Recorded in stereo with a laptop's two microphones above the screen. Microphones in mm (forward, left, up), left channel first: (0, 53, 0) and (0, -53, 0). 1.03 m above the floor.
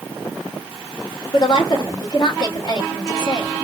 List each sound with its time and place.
1.3 s a woman speaking: 65° left (ahead or behind), 2 m